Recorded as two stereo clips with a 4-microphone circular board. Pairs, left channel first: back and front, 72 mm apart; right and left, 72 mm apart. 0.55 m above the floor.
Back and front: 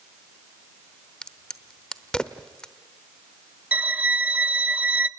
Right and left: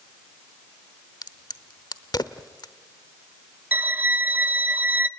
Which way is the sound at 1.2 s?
105° right.